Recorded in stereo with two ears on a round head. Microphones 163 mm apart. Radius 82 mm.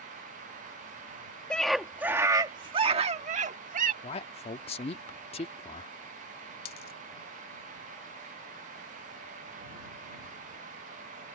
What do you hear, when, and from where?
1.5 s a scream: 5° left (ahead or behind); by 3.9 s 50° right (ahead or behind)
4.0 s a man speaking: 35° left (ahead or behind)
6.7 s a dropped coin: 55° left (ahead or behind)